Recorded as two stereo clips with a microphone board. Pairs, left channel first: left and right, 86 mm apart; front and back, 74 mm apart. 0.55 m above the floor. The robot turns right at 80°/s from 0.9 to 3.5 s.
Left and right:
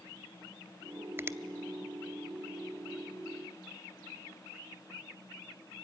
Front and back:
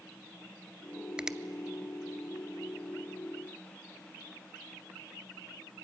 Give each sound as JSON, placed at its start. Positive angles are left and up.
{"t": 1.2, "sound": "a finger snap", "azimuth_deg": -115, "distance_m": 0.7}